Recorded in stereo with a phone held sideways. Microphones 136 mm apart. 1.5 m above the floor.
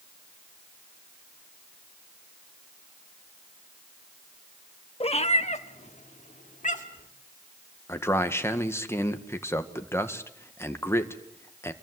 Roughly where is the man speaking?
Centre.